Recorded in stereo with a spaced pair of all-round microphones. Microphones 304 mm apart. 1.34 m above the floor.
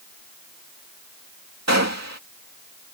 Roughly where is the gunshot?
Right.